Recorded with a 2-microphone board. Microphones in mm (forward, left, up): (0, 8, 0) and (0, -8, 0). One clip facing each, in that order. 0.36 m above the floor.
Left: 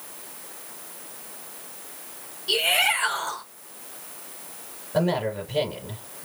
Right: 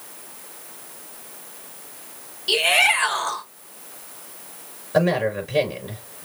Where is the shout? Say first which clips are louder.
Right 4 dB; 35° right (ahead or behind), 1.4 m.